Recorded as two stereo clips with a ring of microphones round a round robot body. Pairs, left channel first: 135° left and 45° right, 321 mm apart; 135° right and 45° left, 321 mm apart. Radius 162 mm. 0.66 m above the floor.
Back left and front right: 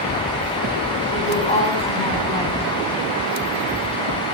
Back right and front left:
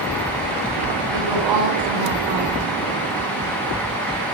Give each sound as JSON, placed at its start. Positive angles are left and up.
{"t": 1.1, "sound": "a woman speaking", "azimuth_deg": 65, "distance_m": 6.0}